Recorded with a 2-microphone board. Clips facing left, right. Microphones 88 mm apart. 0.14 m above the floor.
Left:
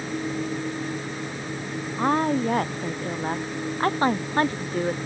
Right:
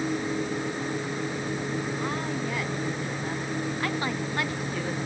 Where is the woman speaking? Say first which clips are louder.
Left 8 dB; 50° left (ahead or behind); by 5.0 s 40° left (ahead or behind).